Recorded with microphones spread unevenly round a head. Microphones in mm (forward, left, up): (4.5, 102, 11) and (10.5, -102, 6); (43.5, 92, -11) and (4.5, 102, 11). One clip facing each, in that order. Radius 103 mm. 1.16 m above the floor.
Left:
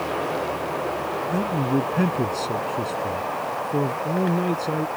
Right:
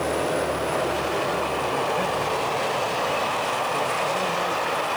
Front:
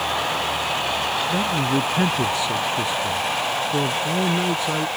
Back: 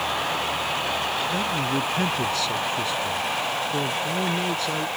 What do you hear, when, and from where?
1.3 s a man speaking: 60° left